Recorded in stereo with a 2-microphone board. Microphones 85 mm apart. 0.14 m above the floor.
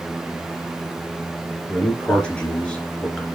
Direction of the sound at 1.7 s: 10° left (ahead or behind).